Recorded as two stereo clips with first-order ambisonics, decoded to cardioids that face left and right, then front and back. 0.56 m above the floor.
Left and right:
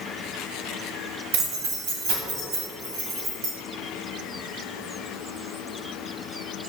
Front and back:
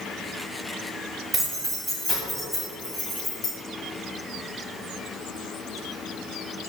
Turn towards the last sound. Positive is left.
turn(degrees=-65)